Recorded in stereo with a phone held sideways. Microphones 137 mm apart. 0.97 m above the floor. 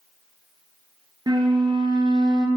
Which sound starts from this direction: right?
A flute, at 1.3 s.